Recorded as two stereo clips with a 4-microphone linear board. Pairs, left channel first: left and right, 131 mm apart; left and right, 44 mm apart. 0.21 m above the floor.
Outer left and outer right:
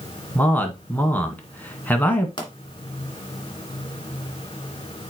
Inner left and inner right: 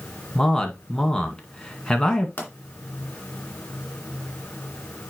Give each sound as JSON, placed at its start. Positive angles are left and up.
{"t": 0.3, "sound": "a man speaking", "side_deg": 15, "distance_m": 1.9}
{"t": 2.4, "sound": "a pop", "side_deg": 40, "distance_m": 2.5}